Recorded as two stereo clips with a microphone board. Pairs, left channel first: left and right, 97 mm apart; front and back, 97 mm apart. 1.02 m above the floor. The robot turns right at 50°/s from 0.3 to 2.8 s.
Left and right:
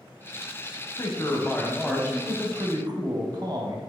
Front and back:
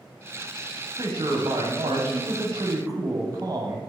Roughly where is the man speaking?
Behind left.